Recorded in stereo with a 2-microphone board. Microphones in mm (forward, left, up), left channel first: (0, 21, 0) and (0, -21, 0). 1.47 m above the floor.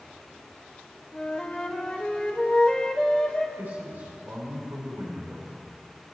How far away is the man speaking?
About 5 m.